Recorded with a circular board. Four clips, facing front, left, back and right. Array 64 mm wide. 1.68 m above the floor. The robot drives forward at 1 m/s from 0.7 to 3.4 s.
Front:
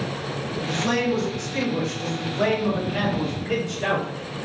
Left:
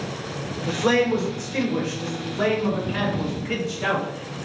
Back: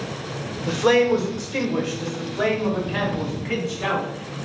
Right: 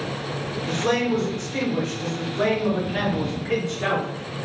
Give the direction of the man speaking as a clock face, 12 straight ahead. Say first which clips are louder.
Left 3 dB, back 7 dB; 7 o'clock.